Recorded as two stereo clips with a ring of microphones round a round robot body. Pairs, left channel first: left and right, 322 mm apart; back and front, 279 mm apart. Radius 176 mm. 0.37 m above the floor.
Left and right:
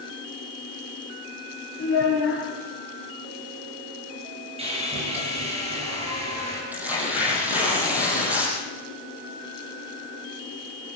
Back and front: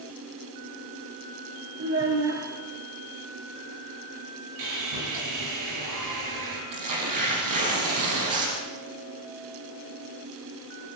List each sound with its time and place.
1.8 s a child speaking: 35° left, 7 m
4.6 s sawing: 15° right, 6 m
6.7 s tearing paper: 5° right, 6 m